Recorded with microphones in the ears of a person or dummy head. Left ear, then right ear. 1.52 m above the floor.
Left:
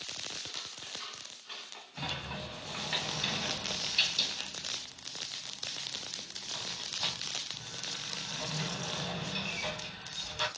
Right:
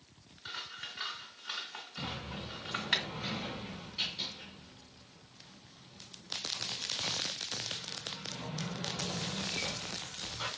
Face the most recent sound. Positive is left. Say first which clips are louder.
# left 4 dB
turn(degrees=55)  # may be behind; listen again after turning